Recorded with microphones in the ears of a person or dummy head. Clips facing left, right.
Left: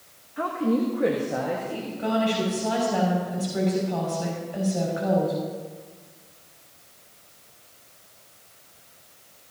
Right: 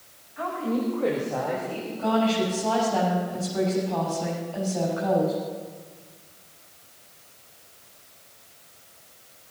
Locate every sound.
0.4 s a woman speaking: 45° left (ahead or behind), 1.5 m; by 1.9 s 10° left (ahead or behind), 2 m
2.0 s a woman speaking: 20° left (ahead or behind), 6.5 m